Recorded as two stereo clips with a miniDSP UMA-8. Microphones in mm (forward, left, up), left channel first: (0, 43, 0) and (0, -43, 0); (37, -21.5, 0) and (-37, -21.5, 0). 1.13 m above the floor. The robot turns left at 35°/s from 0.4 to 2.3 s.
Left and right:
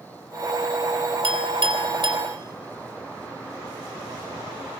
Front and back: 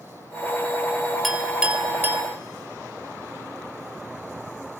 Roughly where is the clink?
Right.